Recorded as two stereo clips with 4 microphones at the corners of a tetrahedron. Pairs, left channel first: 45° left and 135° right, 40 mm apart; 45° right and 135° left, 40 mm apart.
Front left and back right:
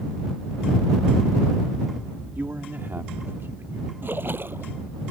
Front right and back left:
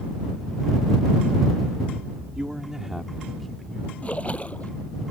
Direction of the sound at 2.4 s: 160° right.